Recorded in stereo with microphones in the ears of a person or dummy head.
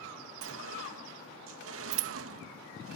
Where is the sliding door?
85° right.